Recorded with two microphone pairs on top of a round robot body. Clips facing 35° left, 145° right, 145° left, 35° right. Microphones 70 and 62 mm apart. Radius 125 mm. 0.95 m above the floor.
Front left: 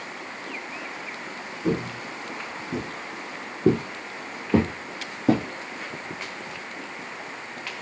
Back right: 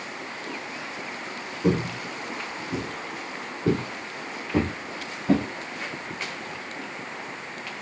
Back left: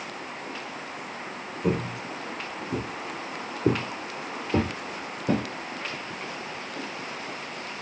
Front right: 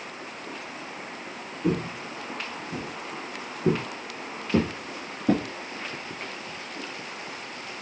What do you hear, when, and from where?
1.6 s footsteps: 140° right, 1.3 m; by 5.5 s 45° left, 2.5 m